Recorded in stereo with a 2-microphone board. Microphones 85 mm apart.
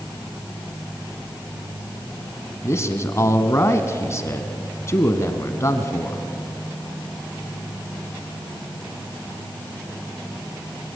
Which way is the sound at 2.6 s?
35° left (ahead or behind).